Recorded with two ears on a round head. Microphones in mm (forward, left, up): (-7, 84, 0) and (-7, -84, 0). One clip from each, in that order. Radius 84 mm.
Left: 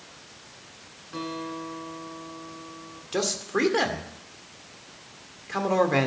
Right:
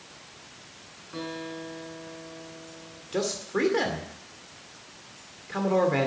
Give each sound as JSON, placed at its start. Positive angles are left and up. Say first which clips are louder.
{"t": 1.1, "sound": "a guitar", "louder": "left 2 dB", "side_deg": 10, "distance_m": 6.5}
{"t": 3.1, "sound": "a man speaking", "louder": "left 2 dB", "side_deg": 25, "distance_m": 2.0}